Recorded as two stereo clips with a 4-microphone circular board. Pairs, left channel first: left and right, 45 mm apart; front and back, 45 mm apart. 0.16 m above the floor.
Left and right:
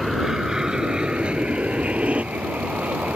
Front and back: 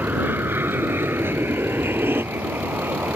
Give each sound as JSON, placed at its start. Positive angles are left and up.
{"t": 0.0, "sound": "an aircraft", "azimuth_deg": -175}